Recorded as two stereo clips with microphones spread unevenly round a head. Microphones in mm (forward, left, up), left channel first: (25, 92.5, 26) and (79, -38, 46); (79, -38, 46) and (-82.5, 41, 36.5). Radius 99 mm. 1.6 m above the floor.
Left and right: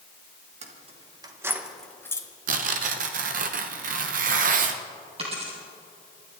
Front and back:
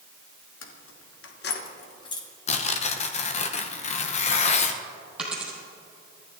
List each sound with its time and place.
0.6 s keys jangling: 40° right, 1.7 m; by 2.3 s 45° left, 1.6 m
2.5 s tearing paper: 75° right, 1.0 m
5.2 s a dropped coin: 120° right, 3.5 m